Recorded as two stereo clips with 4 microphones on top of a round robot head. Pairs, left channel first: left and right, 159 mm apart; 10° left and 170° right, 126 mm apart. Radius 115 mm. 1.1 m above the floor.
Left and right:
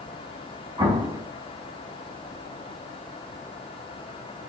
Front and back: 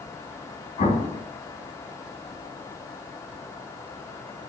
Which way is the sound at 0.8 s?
35° right.